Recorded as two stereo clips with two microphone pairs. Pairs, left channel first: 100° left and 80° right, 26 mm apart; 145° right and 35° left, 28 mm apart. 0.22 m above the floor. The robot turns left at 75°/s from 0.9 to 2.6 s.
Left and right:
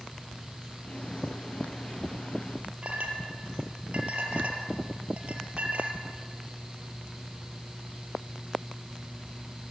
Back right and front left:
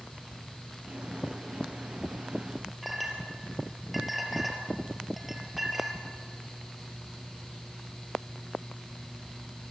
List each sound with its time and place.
2.8 s a clink: 45° right, 4 m